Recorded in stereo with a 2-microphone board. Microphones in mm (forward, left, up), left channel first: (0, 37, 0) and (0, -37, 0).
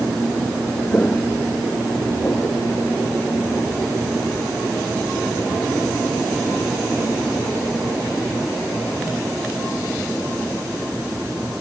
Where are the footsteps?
25° left (ahead or behind); by 3.6 s 35° left (ahead or behind).